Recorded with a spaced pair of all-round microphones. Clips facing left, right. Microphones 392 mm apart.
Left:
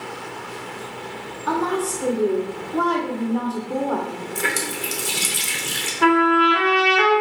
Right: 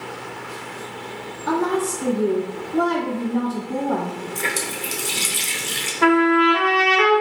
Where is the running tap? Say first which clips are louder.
Left 1 dB; 25° left (ahead or behind), 0.6 m.